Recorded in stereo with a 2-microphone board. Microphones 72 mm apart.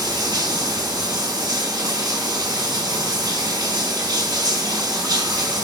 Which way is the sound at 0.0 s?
70° right (ahead or behind).